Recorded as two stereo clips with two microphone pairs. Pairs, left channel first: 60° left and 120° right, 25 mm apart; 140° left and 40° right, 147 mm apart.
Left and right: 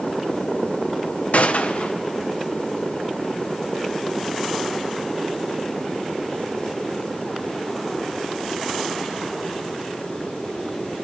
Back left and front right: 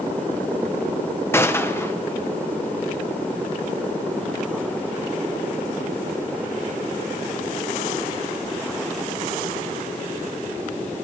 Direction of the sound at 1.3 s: 65° left.